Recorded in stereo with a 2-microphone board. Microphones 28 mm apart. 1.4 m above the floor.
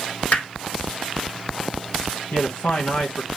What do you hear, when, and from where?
0.3 s hammering: 65° left (ahead or behind), 2 m
2.3 s a man speaking: 75° left (ahead or behind), 1.4 m